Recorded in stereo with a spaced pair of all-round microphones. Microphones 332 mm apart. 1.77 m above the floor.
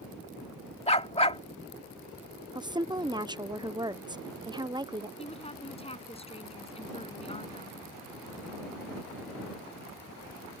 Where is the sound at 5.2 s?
15° left (ahead or behind).